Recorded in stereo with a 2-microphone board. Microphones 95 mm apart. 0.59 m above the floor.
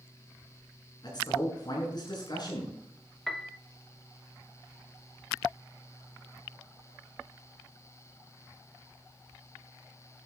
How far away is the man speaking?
About 7 m.